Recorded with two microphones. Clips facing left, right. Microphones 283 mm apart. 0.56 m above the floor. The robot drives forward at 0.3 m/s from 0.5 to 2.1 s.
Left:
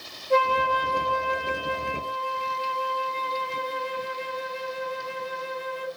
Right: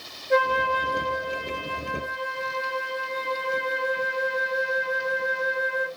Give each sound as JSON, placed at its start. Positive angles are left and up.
{"t": 0.3, "sound": "a flute", "side_deg": -25, "distance_m": 0.7}